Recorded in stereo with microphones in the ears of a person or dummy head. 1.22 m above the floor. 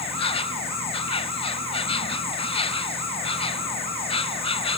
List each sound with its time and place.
0.0 s an insect: 35° left (ahead or behind)